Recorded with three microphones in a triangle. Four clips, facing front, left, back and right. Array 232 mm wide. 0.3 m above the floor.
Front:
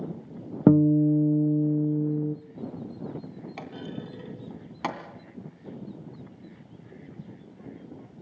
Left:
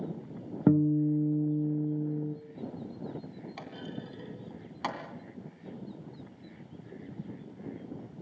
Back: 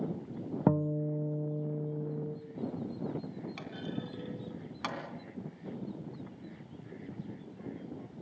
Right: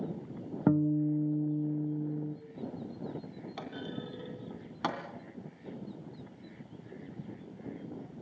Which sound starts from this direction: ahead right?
A clunk, at 3.6 s.